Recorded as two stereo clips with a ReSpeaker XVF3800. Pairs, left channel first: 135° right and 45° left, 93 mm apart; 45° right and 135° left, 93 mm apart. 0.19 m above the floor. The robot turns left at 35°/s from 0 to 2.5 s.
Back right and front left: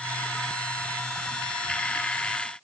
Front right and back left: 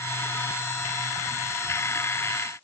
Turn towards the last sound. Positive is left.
No sound to turn to.